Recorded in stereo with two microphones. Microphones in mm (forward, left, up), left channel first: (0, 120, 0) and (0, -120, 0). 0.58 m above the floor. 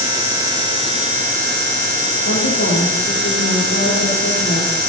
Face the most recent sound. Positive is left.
turn(degrees=75)  # may be behind; listen again after turning